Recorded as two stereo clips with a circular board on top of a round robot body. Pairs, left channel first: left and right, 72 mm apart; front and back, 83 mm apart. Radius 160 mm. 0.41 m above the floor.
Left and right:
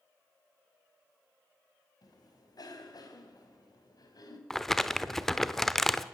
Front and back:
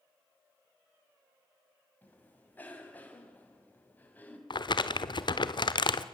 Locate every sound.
2.0 s a cough: 70° left, 5 m
4.5 s crumpling: 5° left, 1.1 m